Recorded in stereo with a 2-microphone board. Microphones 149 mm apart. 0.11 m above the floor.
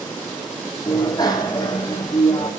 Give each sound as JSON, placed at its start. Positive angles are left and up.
{"t": 0.9, "sound": "a bicycle bell", "side_deg": 25, "distance_m": 3.0}